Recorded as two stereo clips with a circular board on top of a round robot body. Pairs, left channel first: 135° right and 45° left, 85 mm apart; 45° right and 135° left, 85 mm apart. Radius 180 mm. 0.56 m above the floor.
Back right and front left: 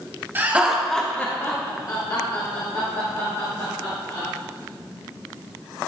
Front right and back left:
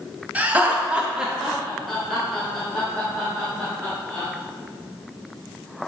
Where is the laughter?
85° left, 1.3 m; by 4.2 s 125° right, 4 m.